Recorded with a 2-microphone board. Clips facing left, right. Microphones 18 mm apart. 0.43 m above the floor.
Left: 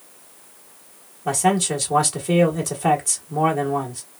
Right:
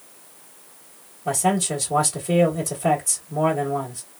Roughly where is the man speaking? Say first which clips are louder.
Left 2 dB; left.